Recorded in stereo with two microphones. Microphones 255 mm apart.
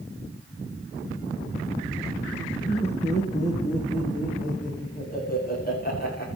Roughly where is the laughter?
Left.